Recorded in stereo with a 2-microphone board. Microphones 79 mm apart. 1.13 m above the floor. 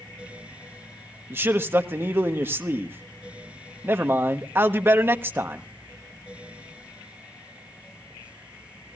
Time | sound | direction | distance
1.3 | a man speaking | 30° right (ahead or behind) | 1.2 m